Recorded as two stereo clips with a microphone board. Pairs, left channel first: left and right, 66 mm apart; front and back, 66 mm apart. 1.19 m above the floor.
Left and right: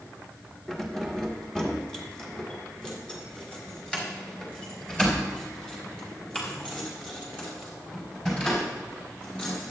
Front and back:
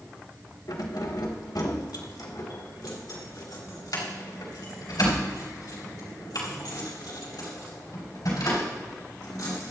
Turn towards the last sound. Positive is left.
turn(degrees=15)